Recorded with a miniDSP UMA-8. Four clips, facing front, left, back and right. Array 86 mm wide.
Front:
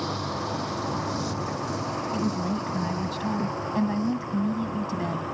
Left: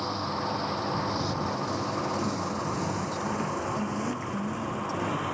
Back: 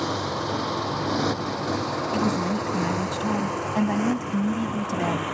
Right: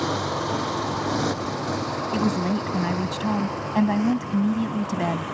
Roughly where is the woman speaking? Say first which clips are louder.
Right 7 dB, back 4 dB; right.